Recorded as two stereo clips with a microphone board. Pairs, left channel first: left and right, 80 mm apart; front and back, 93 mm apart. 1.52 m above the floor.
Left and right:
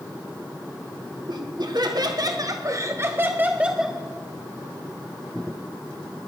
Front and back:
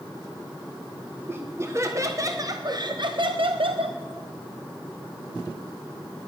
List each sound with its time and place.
1.3 s laughter: 115° right, 1.6 m; by 4.0 s straight behind, 0.8 m